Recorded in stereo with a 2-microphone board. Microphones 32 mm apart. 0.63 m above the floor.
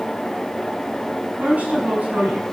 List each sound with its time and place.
1.4 s a woman speaking: 60° right (ahead or behind), 5.5 m